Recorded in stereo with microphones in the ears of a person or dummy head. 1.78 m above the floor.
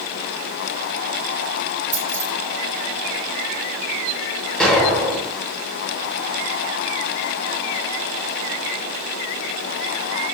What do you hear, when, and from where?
1.9 s keys jangling: 10° right (ahead or behind), 6.5 m
4.6 s an explosion: 5° left (ahead or behind), 9 m